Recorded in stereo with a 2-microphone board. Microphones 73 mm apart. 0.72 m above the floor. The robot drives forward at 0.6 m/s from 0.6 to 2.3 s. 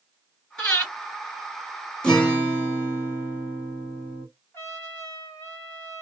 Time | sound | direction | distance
0.6 | breathing | 15° left (ahead or behind) | 1.7 m
2.0 | a guitar | 10° left (ahead or behind) | 1.2 m
4.5 | a trumpet | 35° left (ahead or behind) | 1.8 m